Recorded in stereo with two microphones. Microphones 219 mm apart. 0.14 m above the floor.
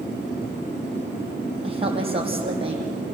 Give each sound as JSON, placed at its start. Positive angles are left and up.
{"t": 1.6, "sound": "a woman speaking", "side_deg": -25, "distance_m": 5.0}